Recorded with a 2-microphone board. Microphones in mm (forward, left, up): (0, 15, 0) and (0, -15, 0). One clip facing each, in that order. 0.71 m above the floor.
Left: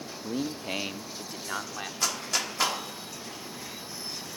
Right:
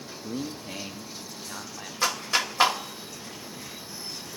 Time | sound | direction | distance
0.2 | a man speaking | 15° left (ahead or behind) | 0.5 m
2.0 | a clap | 25° right (ahead or behind) | 1.3 m